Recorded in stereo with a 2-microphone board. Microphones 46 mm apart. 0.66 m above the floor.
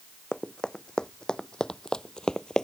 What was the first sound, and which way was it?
Running footsteps, 15° left (ahead or behind).